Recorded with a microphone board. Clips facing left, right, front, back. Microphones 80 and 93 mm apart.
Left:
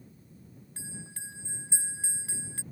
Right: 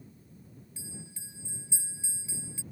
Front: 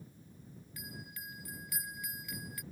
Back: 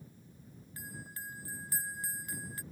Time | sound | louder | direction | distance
0.8 | a bell | left 3 dB, back 2 dB | 125° left | ?